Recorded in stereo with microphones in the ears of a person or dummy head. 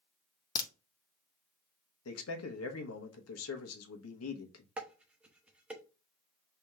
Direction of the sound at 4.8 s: 10° right (ahead or behind).